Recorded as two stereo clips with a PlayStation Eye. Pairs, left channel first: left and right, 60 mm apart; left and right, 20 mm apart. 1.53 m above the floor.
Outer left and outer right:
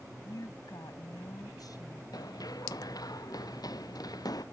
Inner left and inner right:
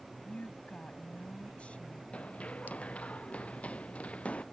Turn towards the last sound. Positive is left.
turn(degrees=80)